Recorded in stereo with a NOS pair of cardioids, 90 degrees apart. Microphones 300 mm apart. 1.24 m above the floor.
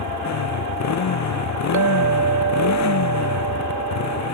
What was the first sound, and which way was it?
A motorcycle, 60° left.